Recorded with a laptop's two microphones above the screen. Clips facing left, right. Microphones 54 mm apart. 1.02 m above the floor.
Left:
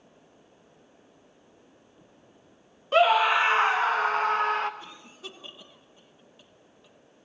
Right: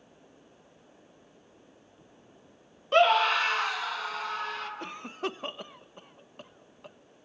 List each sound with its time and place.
2.9 s a scream: centre (ahead or behind), 0.6 m; by 4.7 s 45° left (ahead or behind), 0.8 m
4.8 s a cough: 55° right (ahead or behind), 1.2 m